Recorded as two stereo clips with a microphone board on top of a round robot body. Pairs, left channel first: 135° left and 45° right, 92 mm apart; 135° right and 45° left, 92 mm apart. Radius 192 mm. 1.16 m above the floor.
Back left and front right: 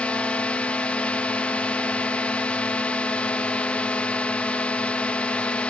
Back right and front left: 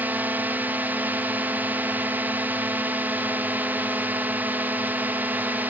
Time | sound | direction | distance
0.0 | a drone | 80° left | ?